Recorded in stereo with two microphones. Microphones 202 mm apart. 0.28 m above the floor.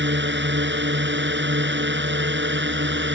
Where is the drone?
65° right (ahead or behind).